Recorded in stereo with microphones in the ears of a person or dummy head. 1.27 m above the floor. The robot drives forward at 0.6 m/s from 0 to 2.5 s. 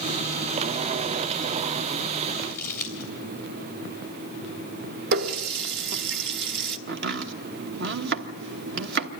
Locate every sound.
2.5 s crumpling: 15° left (ahead or behind), 3.5 m
5.1 s a running tap: 60° right (ahead or behind), 0.9 m
6.9 s chopping: 60° right (ahead or behind), 1.2 m